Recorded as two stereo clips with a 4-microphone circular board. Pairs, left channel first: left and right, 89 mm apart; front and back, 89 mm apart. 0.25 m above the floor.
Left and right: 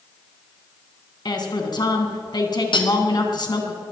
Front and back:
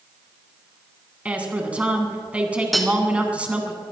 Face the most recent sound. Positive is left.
turn(degrees=90)